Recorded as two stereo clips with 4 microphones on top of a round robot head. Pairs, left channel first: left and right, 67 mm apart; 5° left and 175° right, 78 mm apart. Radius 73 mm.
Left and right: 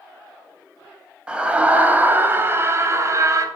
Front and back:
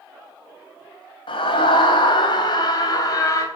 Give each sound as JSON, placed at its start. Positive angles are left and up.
{"t": 1.3, "sound": "a scream", "azimuth_deg": -15, "distance_m": 3.5}